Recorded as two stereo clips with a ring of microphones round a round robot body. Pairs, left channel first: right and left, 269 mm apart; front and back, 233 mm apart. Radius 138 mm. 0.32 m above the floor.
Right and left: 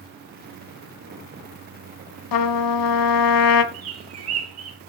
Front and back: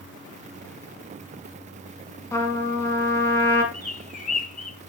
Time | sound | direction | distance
2.3 | a trumpet | 80° right | 0.8 m
3.7 | a bird | 55° left | 2 m